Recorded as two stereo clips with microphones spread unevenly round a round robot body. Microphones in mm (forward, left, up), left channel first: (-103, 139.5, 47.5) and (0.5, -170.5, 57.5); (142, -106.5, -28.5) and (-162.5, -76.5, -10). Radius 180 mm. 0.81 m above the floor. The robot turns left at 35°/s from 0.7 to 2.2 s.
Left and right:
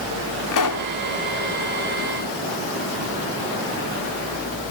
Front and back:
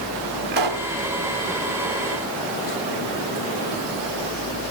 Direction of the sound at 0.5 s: 135° left.